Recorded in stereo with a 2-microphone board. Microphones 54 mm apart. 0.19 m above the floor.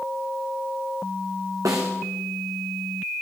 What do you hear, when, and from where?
1.6 s a snare drum: 85° right, 3.5 m